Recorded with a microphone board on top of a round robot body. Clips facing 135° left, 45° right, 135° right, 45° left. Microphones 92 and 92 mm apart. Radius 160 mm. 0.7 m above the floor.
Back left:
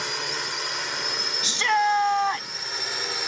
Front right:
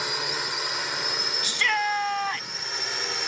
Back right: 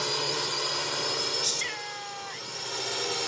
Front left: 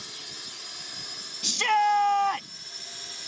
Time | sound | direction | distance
0.0 | a drone | 130° right | ?
1.4 | a shout | 70° left | ?